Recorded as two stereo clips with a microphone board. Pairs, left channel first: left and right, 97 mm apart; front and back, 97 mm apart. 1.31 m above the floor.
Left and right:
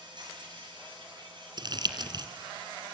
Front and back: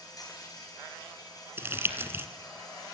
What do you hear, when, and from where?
0.0 s an insect: 50° right, 8.5 m
1.6 s crumpling: 120° right, 2 m